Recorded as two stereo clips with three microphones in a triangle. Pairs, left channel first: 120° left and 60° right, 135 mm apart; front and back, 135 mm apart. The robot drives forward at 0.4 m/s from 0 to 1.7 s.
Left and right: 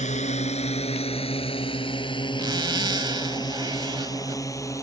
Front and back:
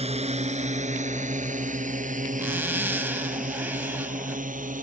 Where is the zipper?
110° right.